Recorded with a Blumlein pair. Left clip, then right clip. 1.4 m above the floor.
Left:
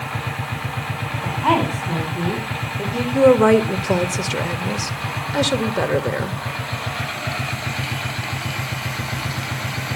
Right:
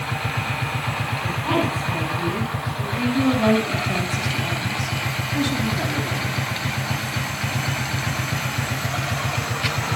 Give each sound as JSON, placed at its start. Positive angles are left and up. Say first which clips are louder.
{"t": 1.2, "sound": "a woman speaking", "louder": "left 5 dB", "azimuth_deg": 25, "distance_m": 5.0}
{"t": 3.1, "sound": "a woman speaking", "louder": "left 8 dB", "azimuth_deg": 30, "distance_m": 1.8}